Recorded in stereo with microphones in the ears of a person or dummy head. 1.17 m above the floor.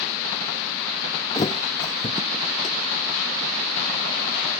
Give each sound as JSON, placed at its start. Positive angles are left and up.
{"t": 1.4, "sound": "a thud", "side_deg": 25}